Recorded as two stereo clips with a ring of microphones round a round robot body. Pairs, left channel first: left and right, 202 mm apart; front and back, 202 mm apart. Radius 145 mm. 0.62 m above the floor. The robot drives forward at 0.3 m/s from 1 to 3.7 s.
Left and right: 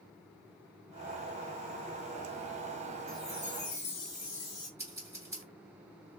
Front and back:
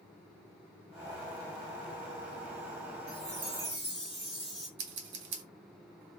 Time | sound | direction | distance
3.1 | a chime | 155° left | 2.0 m
4.8 | scissors | 170° right | 0.6 m